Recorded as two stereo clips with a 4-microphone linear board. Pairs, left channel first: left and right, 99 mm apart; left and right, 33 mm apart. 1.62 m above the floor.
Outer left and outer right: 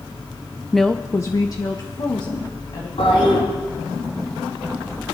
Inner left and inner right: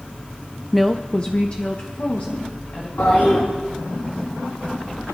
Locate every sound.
0.7 s a woman speaking: 5° right (ahead or behind), 0.5 m; by 2.9 s 50° left (ahead or behind), 2 m
3.0 s a toilet flushing: 80° left, 7.5 m